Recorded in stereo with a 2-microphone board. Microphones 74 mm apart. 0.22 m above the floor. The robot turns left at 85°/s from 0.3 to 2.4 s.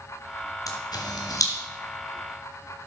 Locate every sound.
0.7 s a camera shutter: 50° left (ahead or behind), 2.5 m